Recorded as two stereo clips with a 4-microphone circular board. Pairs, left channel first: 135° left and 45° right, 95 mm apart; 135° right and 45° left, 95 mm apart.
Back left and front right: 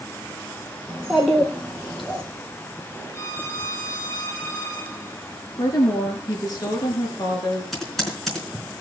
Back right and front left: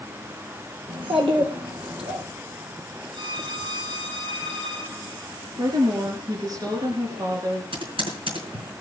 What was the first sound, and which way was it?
A child speaking, 40° left.